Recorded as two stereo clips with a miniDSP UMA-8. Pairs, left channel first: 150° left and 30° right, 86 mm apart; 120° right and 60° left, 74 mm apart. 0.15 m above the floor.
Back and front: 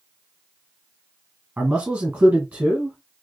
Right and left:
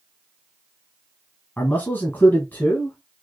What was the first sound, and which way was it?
A man speaking, 95° right.